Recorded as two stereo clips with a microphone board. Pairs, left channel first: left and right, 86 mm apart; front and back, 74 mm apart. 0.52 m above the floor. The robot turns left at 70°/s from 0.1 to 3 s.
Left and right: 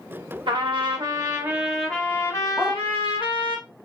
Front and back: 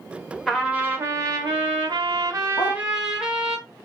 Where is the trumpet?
85° right, 0.7 m; by 3.6 s 95° left, 0.7 m.